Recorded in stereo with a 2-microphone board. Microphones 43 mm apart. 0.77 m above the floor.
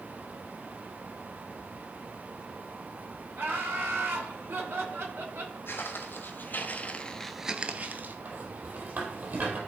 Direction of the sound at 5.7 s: 65° left (ahead or behind).